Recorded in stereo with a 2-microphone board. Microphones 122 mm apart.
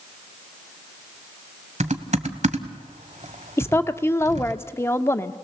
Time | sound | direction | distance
1.8 | typing on a keyboard | 80° right | 1.1 m
3.6 | a woman speaking | 20° left (ahead or behind) | 0.7 m